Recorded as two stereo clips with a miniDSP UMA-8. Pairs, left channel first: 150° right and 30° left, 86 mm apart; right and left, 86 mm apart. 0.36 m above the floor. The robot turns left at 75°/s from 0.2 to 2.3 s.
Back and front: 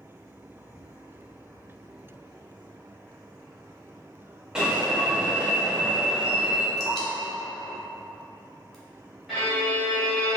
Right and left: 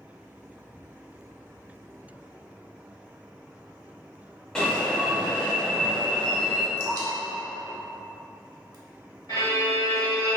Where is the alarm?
30° right, 0.6 m.